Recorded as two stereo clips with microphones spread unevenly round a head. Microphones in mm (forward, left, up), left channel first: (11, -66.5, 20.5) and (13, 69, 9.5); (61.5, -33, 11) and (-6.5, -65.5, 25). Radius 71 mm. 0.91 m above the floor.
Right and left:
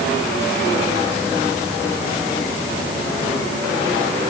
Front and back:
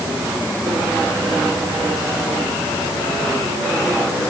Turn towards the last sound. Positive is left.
No sound to turn to.